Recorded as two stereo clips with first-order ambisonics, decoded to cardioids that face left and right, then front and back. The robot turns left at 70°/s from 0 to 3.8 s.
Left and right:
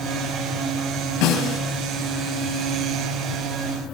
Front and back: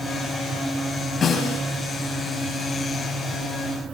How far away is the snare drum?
About 7 m.